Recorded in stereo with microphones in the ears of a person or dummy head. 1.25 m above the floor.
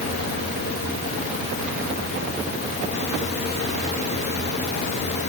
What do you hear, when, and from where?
Only background noise.